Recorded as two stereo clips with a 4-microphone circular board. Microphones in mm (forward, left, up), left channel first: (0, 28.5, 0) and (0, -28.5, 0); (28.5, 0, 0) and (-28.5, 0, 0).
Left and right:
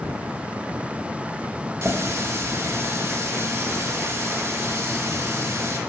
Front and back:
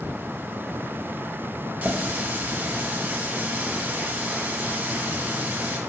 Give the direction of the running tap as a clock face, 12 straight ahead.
4 o'clock.